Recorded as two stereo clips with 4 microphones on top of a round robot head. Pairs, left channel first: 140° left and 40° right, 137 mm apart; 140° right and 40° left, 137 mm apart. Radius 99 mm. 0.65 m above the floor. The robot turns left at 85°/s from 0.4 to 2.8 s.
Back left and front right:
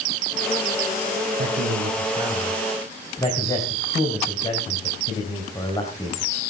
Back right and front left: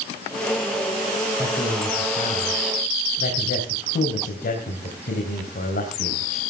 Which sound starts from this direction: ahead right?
A man speaking, at 1.4 s.